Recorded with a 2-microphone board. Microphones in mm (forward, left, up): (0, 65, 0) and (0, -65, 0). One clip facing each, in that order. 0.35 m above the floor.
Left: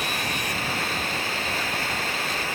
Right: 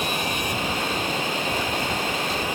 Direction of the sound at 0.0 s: 15° right (ahead or behind).